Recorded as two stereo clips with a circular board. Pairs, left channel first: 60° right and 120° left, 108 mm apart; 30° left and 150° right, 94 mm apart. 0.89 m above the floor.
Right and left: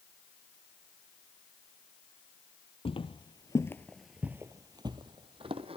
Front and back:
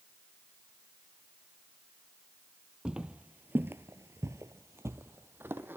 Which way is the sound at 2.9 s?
70° right.